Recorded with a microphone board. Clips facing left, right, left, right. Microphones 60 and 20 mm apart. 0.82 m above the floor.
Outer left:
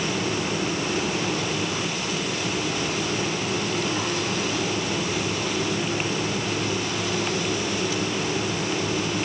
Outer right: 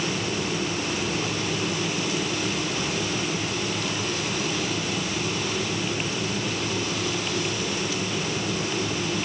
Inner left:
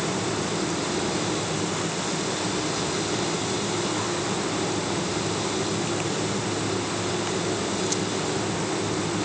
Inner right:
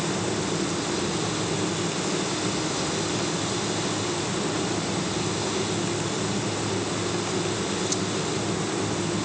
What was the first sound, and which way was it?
Only background noise.